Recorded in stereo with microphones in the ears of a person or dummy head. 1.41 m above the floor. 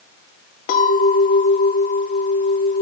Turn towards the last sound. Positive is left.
turn(degrees=45)  # may be behind; listen again after turning